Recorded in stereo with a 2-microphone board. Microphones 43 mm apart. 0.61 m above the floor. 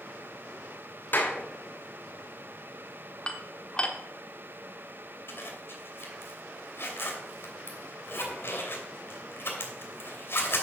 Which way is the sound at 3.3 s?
25° left (ahead or behind).